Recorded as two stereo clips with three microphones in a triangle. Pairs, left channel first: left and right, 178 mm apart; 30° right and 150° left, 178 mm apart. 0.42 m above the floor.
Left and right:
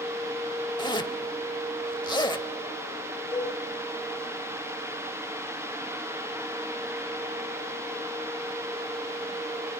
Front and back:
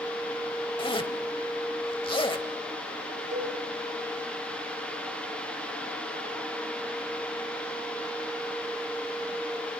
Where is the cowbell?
170° left, 5.5 m.